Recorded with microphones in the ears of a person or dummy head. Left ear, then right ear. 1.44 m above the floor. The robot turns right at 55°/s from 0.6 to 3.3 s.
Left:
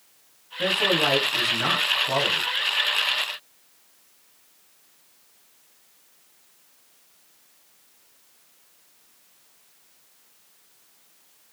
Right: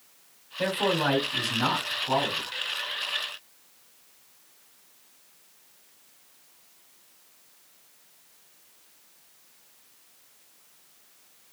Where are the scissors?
I don't hear scissors.